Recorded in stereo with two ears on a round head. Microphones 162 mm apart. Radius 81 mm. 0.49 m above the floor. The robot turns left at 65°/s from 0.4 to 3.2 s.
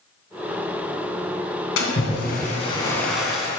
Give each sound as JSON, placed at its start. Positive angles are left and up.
{"t": 1.8, "sound": "a splash", "azimuth_deg": 90, "distance_m": 2.5}